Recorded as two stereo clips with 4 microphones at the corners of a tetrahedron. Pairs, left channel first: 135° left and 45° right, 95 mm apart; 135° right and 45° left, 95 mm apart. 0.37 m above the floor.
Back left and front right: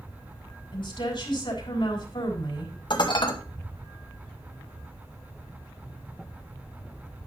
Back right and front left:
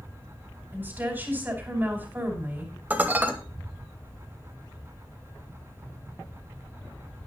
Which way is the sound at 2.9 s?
115° left.